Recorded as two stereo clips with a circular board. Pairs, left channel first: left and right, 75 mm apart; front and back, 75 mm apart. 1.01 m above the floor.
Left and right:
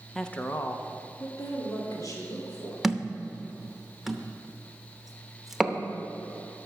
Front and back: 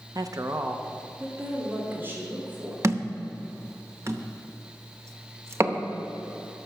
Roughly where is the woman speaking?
Behind.